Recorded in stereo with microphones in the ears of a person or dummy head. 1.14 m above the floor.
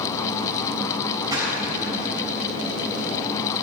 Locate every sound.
1.3 s a splash: 20° right (ahead or behind), 5.5 m